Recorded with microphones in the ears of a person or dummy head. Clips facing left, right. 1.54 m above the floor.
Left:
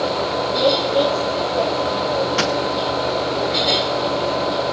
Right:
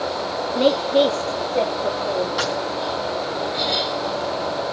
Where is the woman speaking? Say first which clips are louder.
Right 1 dB; 40° right (ahead or behind), 2.5 m; by 2.3 s 45° right (ahead or behind), 5 m.